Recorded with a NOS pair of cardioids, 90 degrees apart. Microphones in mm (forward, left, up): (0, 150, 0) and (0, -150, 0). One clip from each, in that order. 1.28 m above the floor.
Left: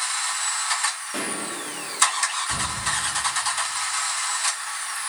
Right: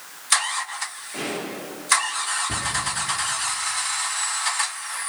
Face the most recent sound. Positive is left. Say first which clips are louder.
# right 1 dB
turn(degrees=-65)